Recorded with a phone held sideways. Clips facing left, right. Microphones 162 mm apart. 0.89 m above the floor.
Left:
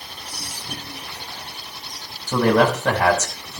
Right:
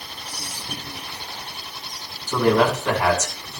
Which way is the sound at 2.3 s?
70° left (ahead or behind).